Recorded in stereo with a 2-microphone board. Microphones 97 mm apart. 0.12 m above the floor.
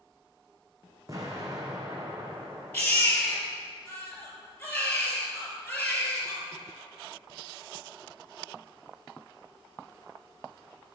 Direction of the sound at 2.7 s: 15° left (ahead or behind).